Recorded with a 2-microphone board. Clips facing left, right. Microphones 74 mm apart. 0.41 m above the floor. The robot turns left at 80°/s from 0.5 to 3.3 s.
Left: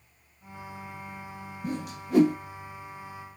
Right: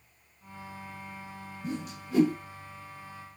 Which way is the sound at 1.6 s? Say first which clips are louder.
Left 3 dB; 50° left (ahead or behind).